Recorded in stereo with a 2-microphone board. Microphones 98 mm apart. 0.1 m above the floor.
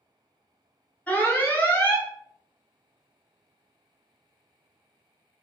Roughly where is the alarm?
Centre.